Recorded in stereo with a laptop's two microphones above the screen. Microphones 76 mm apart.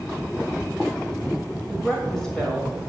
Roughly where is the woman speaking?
Centre.